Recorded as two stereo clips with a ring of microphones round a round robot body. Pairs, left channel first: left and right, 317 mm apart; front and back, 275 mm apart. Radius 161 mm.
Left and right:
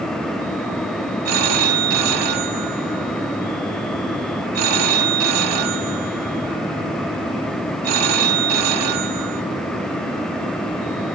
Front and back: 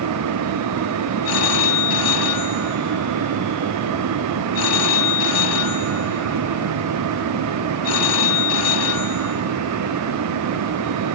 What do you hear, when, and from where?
1.2 s a phone ringing: 45° right, 2.5 m